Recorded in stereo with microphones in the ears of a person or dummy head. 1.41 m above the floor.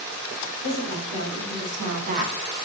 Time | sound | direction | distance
0.6 | a woman speaking | 65° right (ahead or behind) | 1.5 m